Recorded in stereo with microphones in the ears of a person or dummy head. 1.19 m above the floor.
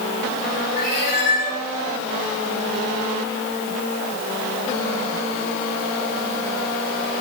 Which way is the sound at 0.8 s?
55° left (ahead or behind).